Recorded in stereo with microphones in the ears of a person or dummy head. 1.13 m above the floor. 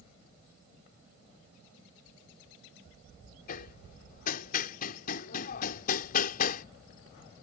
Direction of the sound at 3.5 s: 55° left (ahead or behind).